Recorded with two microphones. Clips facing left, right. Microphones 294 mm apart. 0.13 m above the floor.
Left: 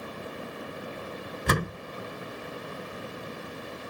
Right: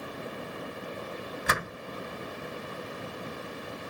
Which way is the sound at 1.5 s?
40° left (ahead or behind).